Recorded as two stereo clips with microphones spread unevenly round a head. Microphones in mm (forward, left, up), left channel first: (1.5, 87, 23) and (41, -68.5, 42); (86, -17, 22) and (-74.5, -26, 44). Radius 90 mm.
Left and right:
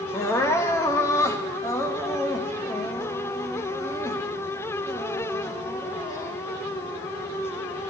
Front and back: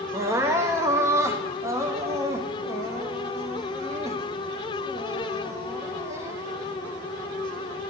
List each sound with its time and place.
0.1 s crying: 175° left, 0.6 m